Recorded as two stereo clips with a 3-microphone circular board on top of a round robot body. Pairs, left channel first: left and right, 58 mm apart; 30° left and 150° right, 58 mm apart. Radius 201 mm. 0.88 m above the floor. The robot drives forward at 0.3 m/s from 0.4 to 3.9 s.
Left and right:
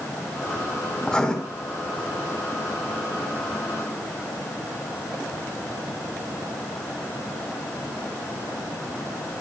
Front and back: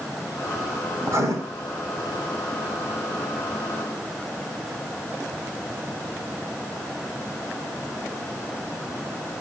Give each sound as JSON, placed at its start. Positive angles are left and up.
{"t": 1.0, "sound": "writing", "azimuth_deg": 165, "distance_m": 5.0}